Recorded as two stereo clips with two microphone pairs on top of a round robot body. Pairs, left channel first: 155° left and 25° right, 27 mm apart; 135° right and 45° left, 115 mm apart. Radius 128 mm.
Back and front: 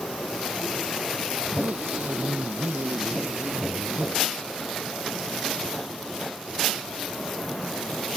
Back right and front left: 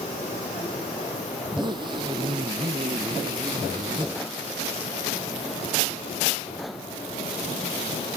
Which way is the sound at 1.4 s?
10° right.